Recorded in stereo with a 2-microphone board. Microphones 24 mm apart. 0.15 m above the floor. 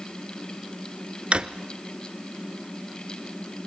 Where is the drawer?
50° right (ahead or behind), 1.0 m.